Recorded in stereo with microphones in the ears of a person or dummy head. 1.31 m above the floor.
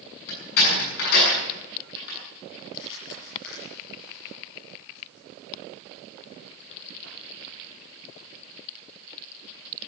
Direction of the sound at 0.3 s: 70° left (ahead or behind).